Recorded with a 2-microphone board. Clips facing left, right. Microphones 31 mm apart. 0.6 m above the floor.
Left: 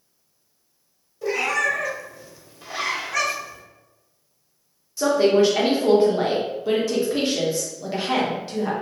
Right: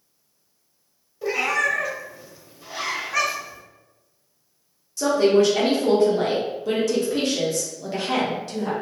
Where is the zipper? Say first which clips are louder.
Left 2 dB; 65° left (ahead or behind), 0.8 m.